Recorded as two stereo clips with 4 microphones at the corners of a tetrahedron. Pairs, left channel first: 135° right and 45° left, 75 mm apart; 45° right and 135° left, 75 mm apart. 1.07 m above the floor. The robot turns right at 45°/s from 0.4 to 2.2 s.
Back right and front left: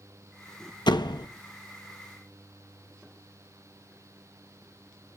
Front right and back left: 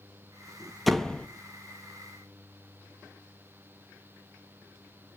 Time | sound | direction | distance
0.9 | a door slam | 135° right | 1.2 m